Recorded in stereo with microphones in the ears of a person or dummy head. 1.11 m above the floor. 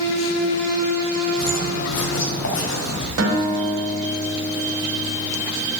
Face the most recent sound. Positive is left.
turn(degrees=-85)